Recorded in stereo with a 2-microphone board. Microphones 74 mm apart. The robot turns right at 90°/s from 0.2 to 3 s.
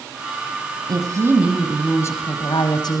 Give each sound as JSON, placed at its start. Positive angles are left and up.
{"t": 0.9, "sound": "a woman speaking", "azimuth_deg": -65, "distance_m": 4.5}